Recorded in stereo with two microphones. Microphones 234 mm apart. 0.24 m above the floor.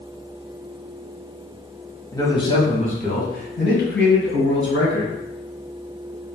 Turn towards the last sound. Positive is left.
turn(degrees=65)  # may be behind; listen again after turning